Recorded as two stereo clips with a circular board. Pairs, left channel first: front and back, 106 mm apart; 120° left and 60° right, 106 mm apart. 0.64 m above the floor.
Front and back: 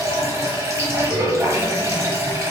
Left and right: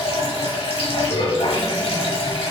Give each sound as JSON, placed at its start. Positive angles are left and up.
{"t": 0.0, "sound": "running water", "azimuth_deg": 120, "distance_m": 0.9}